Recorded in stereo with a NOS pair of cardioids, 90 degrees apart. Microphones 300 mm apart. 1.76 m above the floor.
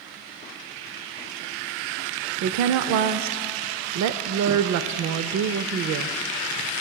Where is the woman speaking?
65° right, 0.6 m.